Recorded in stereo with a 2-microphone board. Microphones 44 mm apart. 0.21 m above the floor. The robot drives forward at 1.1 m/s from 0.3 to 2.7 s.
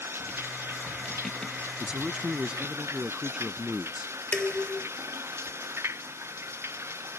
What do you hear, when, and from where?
0.0 s running water: 60° right (ahead or behind); by 7.2 s 75° right (ahead or behind)
1.8 s a man speaking: 25° right (ahead or behind); by 4.1 s 20° right (ahead or behind)
4.3 s dishes clattering: 15° left (ahead or behind)